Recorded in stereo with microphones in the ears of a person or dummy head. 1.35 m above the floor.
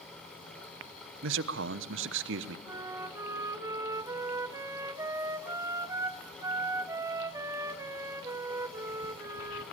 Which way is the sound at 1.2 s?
70° right (ahead or behind).